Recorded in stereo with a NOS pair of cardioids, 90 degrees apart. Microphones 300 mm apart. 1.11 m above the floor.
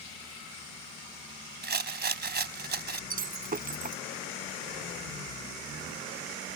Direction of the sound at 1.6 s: 35° right.